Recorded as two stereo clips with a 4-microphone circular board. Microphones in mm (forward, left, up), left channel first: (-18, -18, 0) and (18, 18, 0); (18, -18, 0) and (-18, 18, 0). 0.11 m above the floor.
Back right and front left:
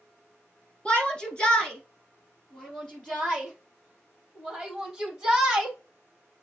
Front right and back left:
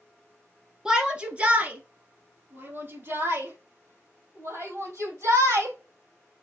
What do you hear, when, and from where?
0.8 s a shout: 165° right, 1.5 m; by 5.8 s 135° left, 4.5 m